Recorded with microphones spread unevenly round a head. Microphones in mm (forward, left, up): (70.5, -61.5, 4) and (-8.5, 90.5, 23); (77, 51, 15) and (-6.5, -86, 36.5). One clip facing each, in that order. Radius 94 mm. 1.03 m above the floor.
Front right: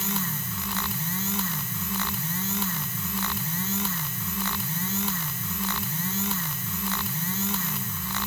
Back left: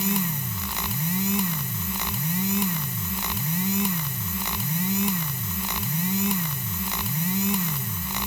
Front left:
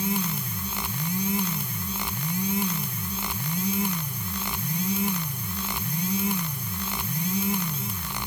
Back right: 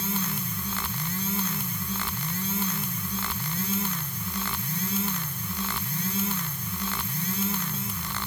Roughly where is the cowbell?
I don't hear a cowbell.